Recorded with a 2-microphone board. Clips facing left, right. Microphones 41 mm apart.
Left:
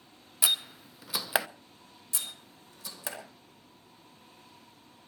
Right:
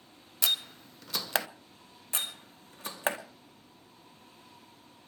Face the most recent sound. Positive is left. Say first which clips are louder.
# right 5 dB
turn(degrees=-45)  # may be behind; listen again after turning